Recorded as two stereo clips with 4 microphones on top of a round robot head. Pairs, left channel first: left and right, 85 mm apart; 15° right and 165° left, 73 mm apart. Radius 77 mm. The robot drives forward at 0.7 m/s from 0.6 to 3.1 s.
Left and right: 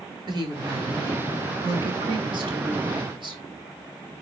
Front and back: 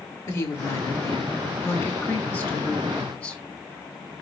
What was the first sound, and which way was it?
A woman speaking, 55° right.